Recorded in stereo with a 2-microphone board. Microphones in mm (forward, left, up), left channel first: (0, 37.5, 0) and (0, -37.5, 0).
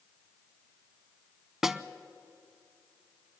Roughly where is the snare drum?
Centre.